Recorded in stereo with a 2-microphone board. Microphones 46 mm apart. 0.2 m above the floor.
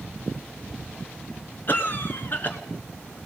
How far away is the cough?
About 2.5 m.